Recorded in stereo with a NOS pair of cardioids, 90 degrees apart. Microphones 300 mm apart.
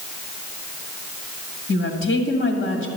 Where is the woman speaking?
45° left, 1.9 m.